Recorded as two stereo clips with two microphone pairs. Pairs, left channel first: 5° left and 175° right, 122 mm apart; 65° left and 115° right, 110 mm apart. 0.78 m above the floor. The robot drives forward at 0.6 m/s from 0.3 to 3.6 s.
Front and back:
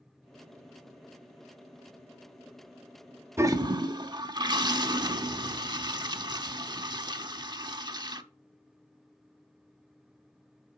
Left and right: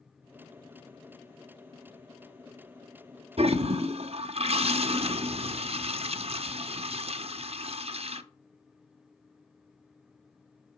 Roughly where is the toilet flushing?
Right.